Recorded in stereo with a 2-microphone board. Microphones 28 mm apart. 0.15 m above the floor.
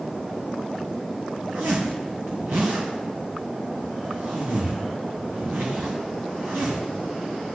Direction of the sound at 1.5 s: 80° right.